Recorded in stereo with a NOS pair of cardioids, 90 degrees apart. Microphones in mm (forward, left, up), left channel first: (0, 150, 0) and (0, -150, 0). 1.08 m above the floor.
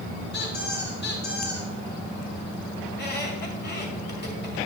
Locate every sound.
0.3 s a squeak: 40° left, 2.5 m
2.9 s a squeak: 35° left, 2 m